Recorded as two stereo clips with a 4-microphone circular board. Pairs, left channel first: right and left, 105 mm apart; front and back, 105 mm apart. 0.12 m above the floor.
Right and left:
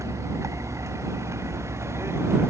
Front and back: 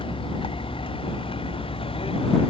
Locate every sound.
0.0 s a vehicle: 30° left; by 2.5 s 25° left